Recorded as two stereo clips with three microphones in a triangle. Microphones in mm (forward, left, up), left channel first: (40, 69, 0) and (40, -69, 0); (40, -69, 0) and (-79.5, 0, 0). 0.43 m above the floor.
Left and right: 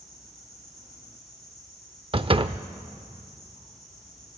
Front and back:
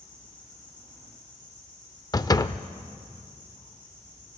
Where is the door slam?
80° right, 0.5 m.